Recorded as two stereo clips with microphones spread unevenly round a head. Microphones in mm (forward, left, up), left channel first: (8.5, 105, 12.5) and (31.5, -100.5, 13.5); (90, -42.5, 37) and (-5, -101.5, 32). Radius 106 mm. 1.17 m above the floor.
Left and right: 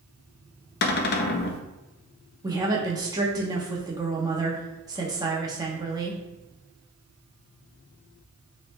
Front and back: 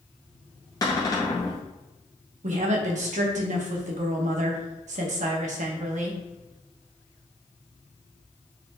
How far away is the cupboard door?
About 0.5 m.